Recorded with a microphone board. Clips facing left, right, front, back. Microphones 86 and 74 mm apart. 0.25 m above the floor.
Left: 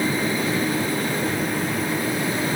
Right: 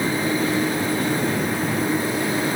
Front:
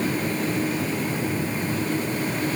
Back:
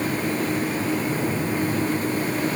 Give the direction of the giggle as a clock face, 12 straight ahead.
I don't hear a giggle.